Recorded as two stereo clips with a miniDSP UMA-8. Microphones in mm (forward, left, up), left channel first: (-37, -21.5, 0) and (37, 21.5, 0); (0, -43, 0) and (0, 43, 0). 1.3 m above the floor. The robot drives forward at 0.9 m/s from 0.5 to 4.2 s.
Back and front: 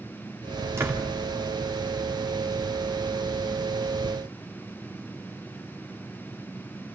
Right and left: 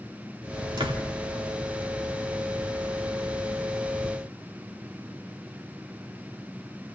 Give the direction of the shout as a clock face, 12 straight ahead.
I don't hear a shout.